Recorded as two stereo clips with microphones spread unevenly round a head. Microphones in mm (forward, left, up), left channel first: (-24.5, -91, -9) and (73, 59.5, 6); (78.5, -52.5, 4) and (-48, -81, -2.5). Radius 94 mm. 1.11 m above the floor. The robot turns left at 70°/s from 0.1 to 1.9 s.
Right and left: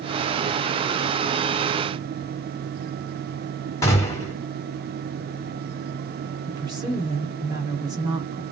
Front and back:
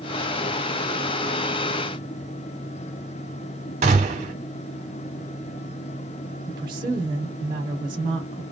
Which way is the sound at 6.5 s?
130° left.